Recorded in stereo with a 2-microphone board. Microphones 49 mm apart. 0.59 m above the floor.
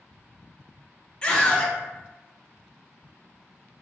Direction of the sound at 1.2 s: 20° left (ahead or behind).